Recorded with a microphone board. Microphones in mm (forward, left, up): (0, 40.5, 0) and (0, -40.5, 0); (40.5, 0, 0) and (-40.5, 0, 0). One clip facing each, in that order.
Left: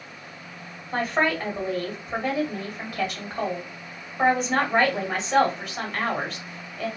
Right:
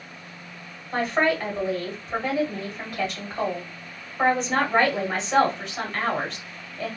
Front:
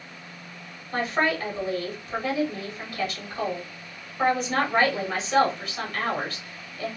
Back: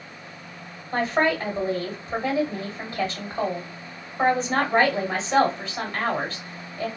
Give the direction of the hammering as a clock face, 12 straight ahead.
I don't hear hammering.